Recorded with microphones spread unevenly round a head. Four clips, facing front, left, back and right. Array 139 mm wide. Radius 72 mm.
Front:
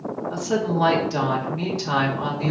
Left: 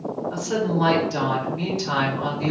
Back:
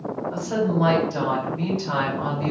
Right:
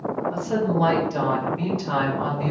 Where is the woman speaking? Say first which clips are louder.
Left 1 dB, even; 10° left, 2.5 m.